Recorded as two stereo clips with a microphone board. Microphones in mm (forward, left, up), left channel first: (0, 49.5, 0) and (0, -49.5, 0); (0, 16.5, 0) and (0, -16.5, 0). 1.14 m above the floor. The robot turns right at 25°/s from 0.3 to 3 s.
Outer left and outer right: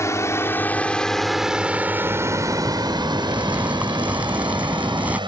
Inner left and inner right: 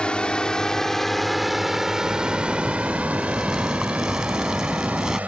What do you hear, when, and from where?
0.0 s a drone: 30° left (ahead or behind); by 5.3 s 55° right (ahead or behind)
2.0 s a zipper: 40° right (ahead or behind); by 5.2 s 15° right (ahead or behind)